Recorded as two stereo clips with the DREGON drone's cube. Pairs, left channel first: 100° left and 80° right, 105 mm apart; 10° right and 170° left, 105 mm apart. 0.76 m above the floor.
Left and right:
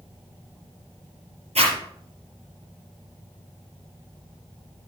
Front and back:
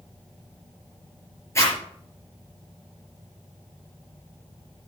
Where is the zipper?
75° right, 5.5 m.